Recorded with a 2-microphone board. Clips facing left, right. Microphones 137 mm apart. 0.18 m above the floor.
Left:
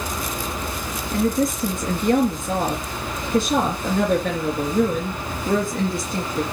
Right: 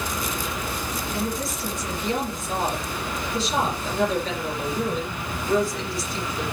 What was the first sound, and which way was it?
A woman speaking, 55° left (ahead or behind).